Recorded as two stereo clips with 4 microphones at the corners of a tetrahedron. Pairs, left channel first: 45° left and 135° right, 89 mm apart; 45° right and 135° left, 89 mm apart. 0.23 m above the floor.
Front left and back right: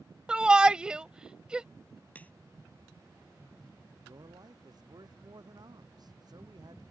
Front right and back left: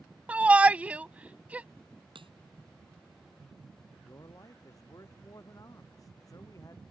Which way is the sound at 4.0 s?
95° right.